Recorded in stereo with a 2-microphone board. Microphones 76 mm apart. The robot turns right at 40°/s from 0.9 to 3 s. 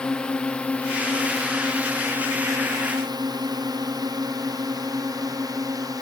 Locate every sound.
0.0 s a drone: 10° left (ahead or behind); by 6.0 s 50° right (ahead or behind)